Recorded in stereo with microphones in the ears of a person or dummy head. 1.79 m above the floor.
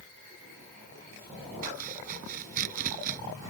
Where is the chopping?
45° right (ahead or behind).